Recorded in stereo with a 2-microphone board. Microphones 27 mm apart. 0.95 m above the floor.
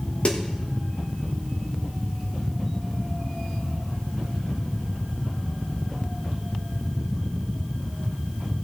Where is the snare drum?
45° left (ahead or behind), 1.2 m.